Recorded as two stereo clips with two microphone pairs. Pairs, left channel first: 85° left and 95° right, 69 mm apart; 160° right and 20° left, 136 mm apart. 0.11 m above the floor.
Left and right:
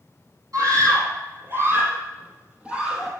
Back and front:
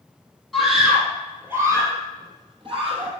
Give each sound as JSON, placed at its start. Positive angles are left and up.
{"t": 0.5, "sound": "a scream", "azimuth_deg": -70, "distance_m": 4.0}